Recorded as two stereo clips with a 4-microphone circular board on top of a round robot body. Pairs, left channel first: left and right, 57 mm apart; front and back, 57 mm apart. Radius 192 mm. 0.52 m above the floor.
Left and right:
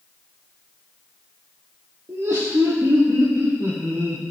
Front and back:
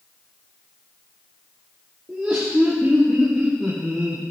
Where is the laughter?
110° right, 2 m; by 4.2 s 100° right, 3 m.